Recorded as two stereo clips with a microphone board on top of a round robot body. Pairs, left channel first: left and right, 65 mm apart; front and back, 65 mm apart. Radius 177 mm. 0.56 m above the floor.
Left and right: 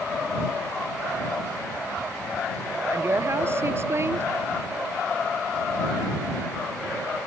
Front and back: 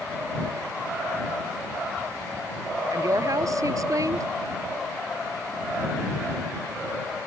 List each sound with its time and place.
2.9 s a woman speaking: 145° right